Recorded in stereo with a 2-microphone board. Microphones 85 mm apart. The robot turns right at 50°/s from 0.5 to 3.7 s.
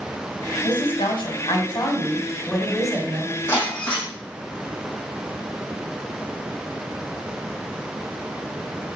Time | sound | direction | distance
0.6 | a woman speaking | 75° left | 3.5 m
3.5 | breaking glass | 25° left (ahead or behind) | 7.5 m